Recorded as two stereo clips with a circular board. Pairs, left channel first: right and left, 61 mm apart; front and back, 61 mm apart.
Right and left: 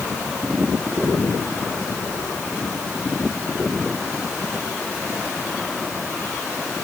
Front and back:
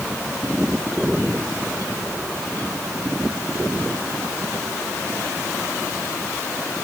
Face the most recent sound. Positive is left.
No sound to turn to.